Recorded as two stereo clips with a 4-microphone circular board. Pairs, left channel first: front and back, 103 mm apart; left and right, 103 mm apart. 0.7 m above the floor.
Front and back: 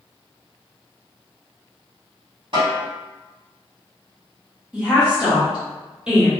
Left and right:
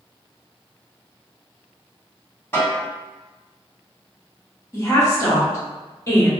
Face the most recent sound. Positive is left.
turn(degrees=110)